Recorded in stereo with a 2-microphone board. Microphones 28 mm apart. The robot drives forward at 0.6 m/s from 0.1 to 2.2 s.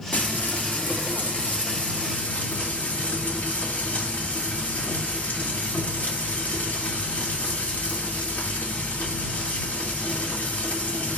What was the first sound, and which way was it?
Frying, 75° left (ahead or behind).